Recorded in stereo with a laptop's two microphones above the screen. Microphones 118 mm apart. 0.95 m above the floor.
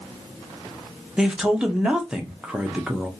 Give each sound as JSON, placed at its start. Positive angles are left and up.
{"t": 1.2, "sound": "a man speaking", "side_deg": -5, "distance_m": 0.7}